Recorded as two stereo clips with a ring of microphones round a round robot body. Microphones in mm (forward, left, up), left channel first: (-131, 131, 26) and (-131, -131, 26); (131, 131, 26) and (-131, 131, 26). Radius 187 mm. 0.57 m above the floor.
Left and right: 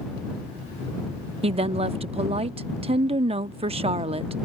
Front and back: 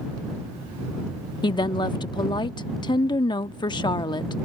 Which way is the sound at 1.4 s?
55° right.